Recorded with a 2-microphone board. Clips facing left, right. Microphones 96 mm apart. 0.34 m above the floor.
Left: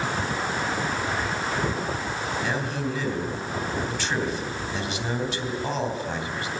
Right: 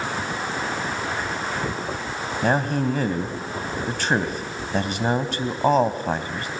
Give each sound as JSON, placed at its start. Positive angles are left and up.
{"t": 2.4, "sound": "a man speaking", "side_deg": -50, "distance_m": 2.5}